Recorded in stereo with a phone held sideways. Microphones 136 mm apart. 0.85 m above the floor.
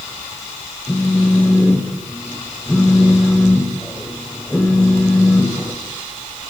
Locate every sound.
0.9 s a phone buzzing: 5° left (ahead or behind), 3.5 m